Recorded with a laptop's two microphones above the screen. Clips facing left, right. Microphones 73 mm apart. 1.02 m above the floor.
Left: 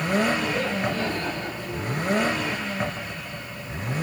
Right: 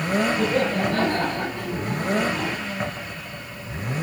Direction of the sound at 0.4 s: 60° right (ahead or behind).